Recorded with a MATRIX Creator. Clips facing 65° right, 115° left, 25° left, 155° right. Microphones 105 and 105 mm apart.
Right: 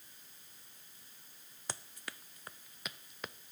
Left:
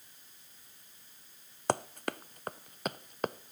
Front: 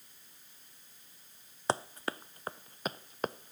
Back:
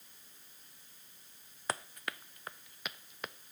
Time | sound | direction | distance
1.7 | running footsteps | 85° left | ?